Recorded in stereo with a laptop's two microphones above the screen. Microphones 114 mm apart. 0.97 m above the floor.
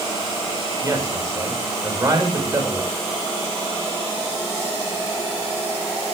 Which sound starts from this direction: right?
A man speaking, at 0.8 s.